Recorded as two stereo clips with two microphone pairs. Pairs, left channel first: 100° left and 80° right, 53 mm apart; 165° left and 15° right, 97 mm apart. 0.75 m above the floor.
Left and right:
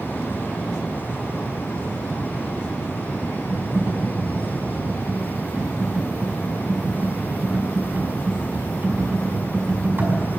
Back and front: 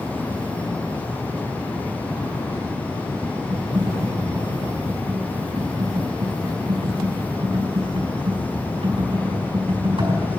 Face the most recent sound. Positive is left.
turn(degrees=-40)